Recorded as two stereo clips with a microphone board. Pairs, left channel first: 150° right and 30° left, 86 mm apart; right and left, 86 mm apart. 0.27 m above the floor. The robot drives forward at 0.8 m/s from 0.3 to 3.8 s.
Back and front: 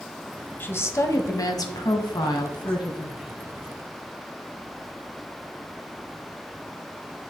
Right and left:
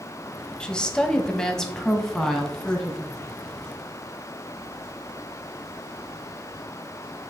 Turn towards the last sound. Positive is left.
turn(degrees=-175)